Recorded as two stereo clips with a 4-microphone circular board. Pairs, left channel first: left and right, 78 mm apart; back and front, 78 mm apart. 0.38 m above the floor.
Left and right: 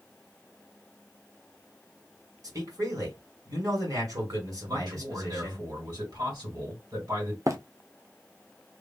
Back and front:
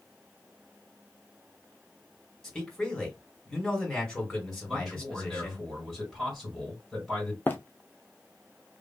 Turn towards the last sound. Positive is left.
turn(degrees=-120)